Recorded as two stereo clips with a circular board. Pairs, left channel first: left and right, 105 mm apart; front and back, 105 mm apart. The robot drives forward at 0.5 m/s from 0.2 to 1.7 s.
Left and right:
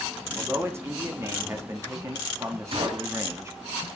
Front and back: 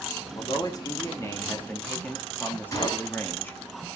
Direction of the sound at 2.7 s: 60° right.